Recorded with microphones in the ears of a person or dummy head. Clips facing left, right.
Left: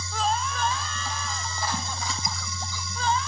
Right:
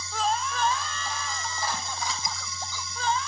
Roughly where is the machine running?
Left.